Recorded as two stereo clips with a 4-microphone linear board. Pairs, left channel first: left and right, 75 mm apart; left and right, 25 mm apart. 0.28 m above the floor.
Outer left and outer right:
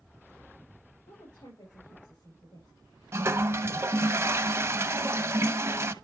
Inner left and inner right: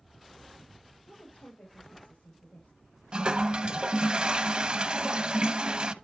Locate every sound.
1.1 s a woman speaking: 70° left (ahead or behind), 6.5 m
3.1 s a toilet flushing: 35° right (ahead or behind), 0.6 m